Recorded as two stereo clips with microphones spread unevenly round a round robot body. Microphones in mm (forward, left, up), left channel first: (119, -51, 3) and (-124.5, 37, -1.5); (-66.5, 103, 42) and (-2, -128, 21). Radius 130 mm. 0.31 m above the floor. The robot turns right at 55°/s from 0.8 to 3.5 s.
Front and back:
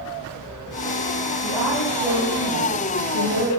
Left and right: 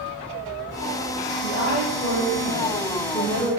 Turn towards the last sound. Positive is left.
turn(degrees=165)